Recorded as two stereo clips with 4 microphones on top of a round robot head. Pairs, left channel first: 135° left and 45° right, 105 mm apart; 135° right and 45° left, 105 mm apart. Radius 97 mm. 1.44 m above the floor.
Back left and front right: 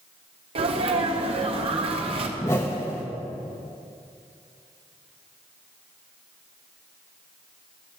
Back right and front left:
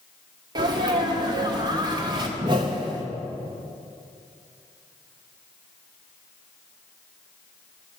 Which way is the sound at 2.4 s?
75° left.